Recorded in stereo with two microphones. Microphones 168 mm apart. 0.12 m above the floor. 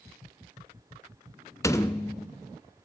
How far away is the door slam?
About 0.8 m.